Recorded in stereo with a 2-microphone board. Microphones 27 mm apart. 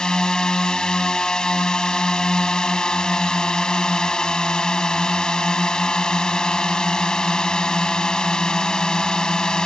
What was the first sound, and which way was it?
A drone, 30° left (ahead or behind).